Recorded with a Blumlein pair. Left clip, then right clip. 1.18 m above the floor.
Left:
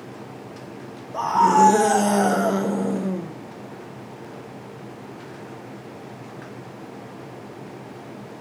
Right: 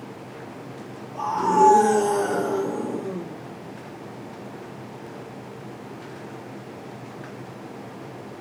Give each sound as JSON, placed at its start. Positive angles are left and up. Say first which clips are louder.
{"t": 1.1, "sound": "a scream", "louder": "left 4 dB", "azimuth_deg": 50, "distance_m": 0.8}